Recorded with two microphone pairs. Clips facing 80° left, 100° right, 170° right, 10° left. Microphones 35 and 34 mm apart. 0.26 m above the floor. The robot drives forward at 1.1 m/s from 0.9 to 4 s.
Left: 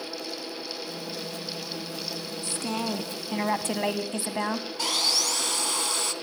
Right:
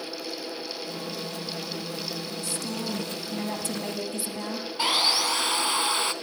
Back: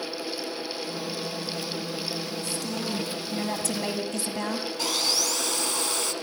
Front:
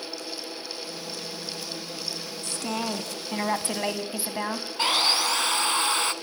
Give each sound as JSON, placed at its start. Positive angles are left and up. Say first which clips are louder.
{"t": 2.4, "sound": "a woman speaking", "louder": "left 4 dB, front 1 dB", "azimuth_deg": 35, "distance_m": 2.5}
{"t": 4.8, "sound": "sawing", "louder": "right 4 dB, front 6 dB", "azimuth_deg": -40, "distance_m": 0.7}